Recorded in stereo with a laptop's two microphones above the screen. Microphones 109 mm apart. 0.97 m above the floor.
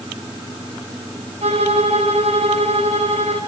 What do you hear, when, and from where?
1.4 s a violin: 85° right, 5.5 m